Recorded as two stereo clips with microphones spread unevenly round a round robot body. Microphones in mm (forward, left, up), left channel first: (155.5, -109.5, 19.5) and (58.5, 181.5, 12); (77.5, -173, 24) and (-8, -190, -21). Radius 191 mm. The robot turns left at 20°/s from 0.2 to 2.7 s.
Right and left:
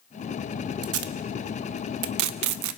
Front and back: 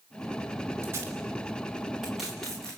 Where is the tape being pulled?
150° left, 0.8 m; by 2.8 s 110° left, 0.8 m.